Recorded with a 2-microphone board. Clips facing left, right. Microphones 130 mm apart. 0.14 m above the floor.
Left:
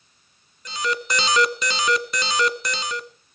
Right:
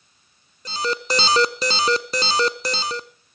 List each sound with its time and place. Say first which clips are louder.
0.7 s an alarm: right 2 dB; 35° right (ahead or behind), 0.9 m